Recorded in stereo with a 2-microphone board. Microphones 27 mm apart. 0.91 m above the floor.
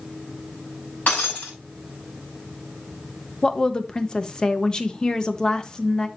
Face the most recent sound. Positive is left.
turn(degrees=30)  # may be behind; listen again after turning